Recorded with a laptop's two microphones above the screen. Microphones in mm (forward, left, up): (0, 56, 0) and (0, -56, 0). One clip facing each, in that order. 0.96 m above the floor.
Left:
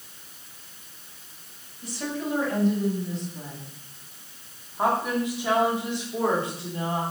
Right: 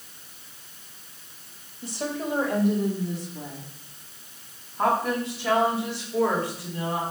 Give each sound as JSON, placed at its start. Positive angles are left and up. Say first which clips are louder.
{"t": 1.8, "sound": "a woman speaking", "louder": "right 1 dB", "side_deg": -25, "distance_m": 2.0}